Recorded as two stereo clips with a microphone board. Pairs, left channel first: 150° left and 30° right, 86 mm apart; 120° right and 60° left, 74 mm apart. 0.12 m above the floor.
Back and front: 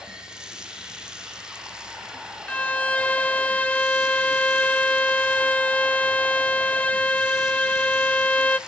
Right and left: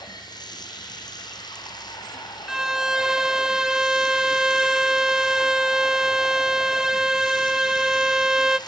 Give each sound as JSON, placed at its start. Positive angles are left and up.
{"t": 0.0, "sound": "running water", "azimuth_deg": -110, "distance_m": 4.0}
{"t": 2.5, "sound": "a violin", "azimuth_deg": 120, "distance_m": 0.5}